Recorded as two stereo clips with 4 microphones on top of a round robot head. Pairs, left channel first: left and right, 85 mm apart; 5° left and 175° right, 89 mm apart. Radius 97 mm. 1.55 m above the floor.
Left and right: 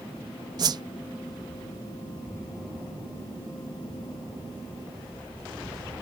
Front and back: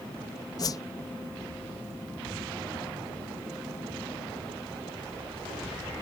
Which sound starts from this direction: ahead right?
A whoosh, at 0.6 s.